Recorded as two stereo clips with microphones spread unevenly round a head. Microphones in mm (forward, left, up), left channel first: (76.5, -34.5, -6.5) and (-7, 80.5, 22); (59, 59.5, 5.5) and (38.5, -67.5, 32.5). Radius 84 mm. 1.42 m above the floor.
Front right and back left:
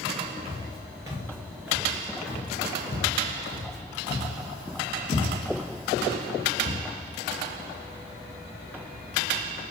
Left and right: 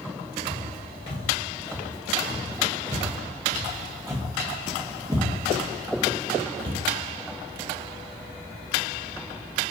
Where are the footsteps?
120° left, 1.8 m; by 6.8 s 55° right, 3 m.